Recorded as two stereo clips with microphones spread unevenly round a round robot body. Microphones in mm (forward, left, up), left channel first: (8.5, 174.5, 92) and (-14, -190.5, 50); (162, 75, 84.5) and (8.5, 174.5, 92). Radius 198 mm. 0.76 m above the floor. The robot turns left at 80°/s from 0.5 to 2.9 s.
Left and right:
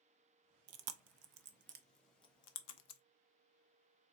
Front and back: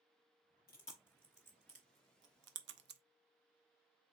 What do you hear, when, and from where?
0.7 s chewing: 70° right, 0.7 m; by 3.0 s 115° left, 0.7 m